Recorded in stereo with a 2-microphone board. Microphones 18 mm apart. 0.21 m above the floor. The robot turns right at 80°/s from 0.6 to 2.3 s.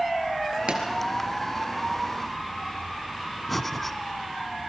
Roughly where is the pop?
Right.